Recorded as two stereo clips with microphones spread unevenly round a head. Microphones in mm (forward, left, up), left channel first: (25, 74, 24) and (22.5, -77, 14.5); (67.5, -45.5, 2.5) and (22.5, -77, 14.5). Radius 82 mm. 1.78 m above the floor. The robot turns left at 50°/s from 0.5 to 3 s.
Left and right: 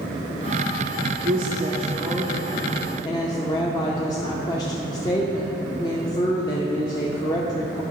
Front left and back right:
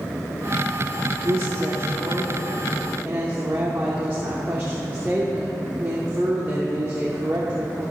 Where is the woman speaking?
120° right, 0.5 m; by 7.8 s 155° left, 0.5 m.